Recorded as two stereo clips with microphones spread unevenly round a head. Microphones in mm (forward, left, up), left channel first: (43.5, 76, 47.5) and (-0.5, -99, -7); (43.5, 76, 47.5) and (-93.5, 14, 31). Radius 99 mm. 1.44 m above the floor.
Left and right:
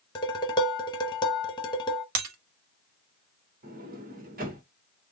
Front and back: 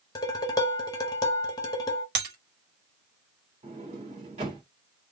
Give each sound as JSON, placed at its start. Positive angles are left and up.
{"t": 0.1, "sound": "dishes clattering", "azimuth_deg": 65, "distance_m": 0.8}
{"t": 2.1, "sound": "breaking glass", "azimuth_deg": -130, "distance_m": 1.2}
{"t": 3.6, "sound": "a sliding door", "azimuth_deg": -140, "distance_m": 1.2}